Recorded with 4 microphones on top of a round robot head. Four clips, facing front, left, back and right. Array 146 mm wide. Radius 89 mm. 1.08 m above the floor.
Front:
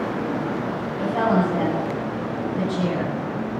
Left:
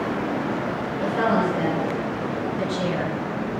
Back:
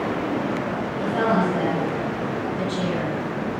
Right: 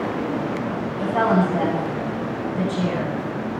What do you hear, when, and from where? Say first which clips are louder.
1.0 s a woman speaking: right 2 dB, front 1 dB; 70° right, 9 m